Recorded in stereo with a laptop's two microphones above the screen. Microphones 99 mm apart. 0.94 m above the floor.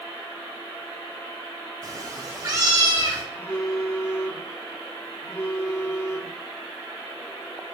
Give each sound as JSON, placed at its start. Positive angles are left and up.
{"t": 1.8, "sound": "a cat meowing", "side_deg": -35, "distance_m": 0.6}
{"t": 3.3, "sound": "a phone buzzing", "side_deg": 35, "distance_m": 1.1}